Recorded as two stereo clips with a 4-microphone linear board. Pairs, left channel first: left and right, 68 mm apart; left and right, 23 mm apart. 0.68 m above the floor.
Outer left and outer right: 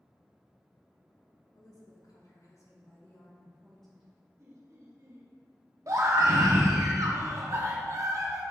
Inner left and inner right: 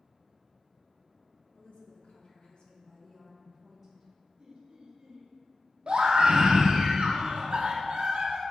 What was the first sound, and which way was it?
A woman speaking, 65° left (ahead or behind).